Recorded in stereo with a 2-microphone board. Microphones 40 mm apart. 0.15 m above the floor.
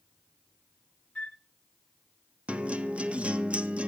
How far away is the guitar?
About 0.7 m.